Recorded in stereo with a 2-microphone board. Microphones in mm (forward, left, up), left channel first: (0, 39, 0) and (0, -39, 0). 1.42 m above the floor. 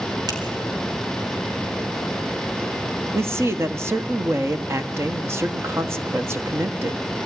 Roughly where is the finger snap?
Right.